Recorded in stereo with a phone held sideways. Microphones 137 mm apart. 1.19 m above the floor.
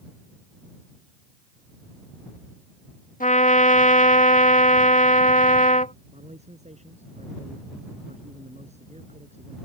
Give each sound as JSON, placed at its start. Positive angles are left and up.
{"t": 3.2, "sound": "a trumpet", "side_deg": 80}
{"t": 6.1, "sound": "a man speaking", "side_deg": -55}